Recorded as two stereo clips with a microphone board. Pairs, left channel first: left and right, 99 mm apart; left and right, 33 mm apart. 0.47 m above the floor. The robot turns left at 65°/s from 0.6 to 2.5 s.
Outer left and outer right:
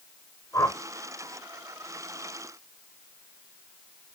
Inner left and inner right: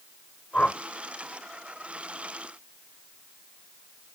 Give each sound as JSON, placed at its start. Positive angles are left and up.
{"t": 0.5, "sound": "a whoosh", "side_deg": 30, "distance_m": 1.1}